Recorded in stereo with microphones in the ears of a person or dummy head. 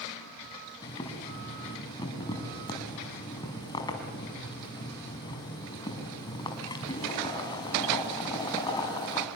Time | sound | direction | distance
0.8 | boiling | 25° left (ahead or behind) | 4.5 m